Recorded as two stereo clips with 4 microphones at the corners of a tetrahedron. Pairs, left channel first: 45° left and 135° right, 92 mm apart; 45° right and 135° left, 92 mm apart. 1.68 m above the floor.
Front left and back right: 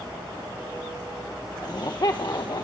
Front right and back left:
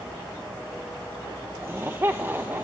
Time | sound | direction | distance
1.6 | laughter | 75° left | 1.1 m